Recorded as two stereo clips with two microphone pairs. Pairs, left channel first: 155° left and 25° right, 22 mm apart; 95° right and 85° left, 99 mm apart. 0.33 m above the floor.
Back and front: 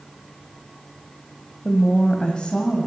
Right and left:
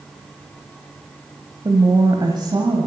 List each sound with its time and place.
1.6 s a woman speaking: 105° left, 1.4 m; by 2.9 s 115° left, 2 m